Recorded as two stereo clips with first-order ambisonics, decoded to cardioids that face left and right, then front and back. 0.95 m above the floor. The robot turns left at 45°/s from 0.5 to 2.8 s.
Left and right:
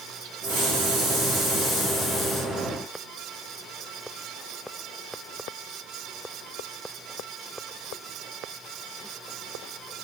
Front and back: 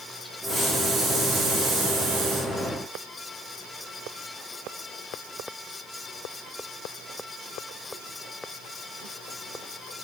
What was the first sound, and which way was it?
A hiss, 95° right.